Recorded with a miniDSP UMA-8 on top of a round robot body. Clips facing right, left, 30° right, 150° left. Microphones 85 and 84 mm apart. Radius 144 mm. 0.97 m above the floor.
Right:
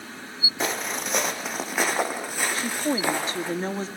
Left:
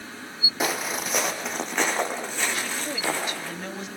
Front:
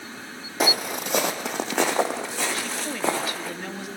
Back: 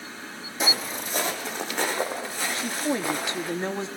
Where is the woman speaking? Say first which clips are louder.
Right 5 dB, back 3 dB; 145° right, 2 m.